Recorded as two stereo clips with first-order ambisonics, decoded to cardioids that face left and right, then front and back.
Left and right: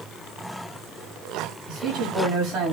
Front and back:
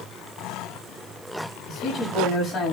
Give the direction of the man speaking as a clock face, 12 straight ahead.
2 o'clock.